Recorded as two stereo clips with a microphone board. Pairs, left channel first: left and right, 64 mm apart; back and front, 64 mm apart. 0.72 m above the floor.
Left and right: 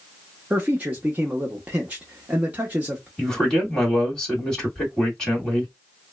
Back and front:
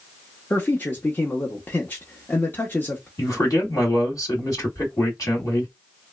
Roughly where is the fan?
No fan in this recording.